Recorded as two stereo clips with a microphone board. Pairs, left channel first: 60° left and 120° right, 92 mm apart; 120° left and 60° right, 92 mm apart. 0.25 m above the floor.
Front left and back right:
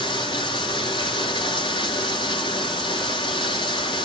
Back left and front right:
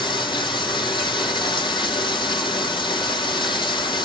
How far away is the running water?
About 3 m.